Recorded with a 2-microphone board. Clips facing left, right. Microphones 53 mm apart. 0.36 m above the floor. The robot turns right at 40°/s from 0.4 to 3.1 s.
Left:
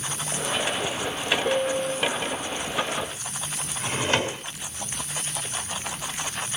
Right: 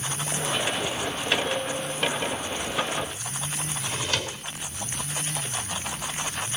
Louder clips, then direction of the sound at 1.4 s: Left 5 dB; 35° left (ahead or behind).